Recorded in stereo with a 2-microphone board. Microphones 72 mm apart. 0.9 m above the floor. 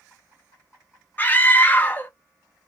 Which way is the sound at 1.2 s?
25° left (ahead or behind).